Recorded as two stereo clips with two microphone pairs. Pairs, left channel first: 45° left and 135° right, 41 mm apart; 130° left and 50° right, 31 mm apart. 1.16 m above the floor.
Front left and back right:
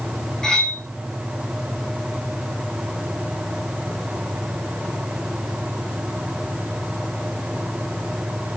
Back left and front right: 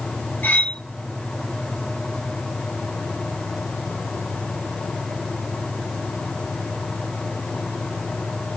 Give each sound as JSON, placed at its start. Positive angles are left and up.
{"t": 0.4, "sound": "cutlery clinking", "azimuth_deg": 120, "distance_m": 6.5}